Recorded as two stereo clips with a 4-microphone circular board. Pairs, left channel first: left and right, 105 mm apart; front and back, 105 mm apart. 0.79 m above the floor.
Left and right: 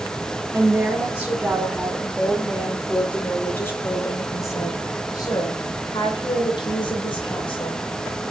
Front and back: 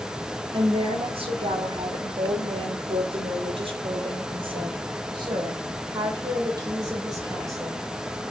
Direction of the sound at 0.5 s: 160° right.